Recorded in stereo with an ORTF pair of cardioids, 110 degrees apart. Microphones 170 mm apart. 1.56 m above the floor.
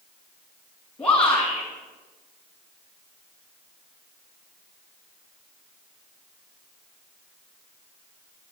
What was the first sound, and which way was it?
A shout, 5° left.